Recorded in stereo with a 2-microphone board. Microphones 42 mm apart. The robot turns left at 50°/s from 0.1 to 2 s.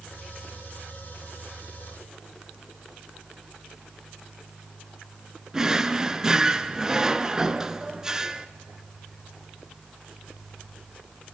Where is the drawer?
15° right (ahead or behind), 0.6 m.